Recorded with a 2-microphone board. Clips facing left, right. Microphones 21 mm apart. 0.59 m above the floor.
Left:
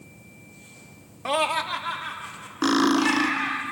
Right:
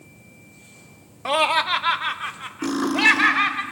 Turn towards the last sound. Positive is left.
turn(degrees=50)  # may be behind; listen again after turning